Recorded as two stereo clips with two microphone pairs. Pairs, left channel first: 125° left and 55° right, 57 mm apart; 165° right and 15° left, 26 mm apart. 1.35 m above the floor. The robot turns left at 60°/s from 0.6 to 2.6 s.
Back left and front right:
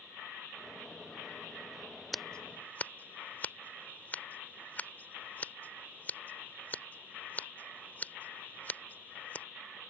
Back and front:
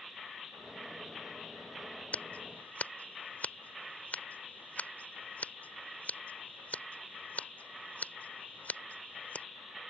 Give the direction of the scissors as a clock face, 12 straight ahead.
5 o'clock.